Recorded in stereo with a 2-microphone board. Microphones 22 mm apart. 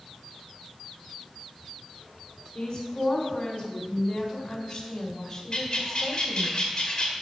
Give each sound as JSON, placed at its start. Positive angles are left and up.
{"t": 2.5, "sound": "a woman speaking", "side_deg": 55, "distance_m": 4.5}
{"t": 5.5, "sound": "a bird", "side_deg": 45, "distance_m": 2.0}